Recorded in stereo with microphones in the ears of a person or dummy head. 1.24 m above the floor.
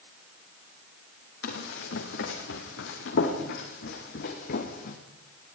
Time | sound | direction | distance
1.4 | running footsteps | 70° left (ahead or behind) | 3.5 m